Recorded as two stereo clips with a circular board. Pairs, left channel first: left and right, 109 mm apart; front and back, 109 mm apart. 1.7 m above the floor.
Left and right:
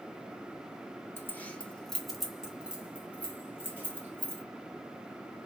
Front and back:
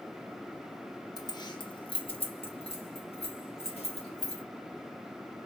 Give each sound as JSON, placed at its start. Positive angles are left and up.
{"t": 1.2, "sound": "keys jangling", "azimuth_deg": 35, "distance_m": 0.7}